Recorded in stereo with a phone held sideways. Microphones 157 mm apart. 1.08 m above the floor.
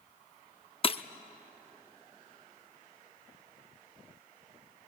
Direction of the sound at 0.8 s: 40° left (ahead or behind).